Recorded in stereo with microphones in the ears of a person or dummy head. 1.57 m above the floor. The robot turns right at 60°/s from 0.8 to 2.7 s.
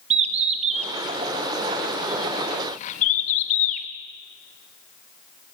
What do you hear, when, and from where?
0.1 s a bird: 40° right (ahead or behind), 1.2 m; by 3.9 s 45° left (ahead or behind), 1.2 m